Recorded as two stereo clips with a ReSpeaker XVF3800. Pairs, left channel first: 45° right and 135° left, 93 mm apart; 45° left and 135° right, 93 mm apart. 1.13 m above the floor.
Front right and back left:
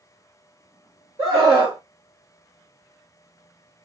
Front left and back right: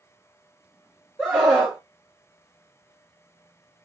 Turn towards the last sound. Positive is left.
turn(degrees=150)